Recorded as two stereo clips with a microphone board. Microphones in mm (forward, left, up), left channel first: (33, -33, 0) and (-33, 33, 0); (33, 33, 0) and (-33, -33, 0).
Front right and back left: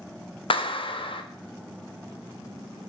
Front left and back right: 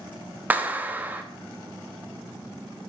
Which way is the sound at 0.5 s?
65° right.